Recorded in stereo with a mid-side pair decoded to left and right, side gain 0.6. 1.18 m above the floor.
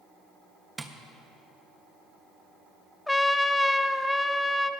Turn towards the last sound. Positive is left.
turn(degrees=5)